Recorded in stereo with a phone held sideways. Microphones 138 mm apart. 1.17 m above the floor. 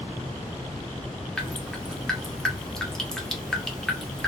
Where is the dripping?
5° left (ahead or behind), 0.7 m.